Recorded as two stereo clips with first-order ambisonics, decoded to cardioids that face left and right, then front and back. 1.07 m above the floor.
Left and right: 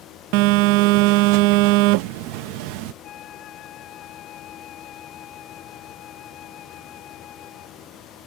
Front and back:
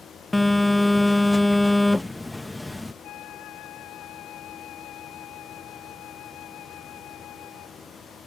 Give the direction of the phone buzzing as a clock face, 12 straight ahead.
3 o'clock.